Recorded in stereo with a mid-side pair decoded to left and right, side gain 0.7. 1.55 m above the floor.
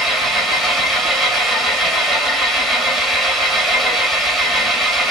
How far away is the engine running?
About 2.5 m.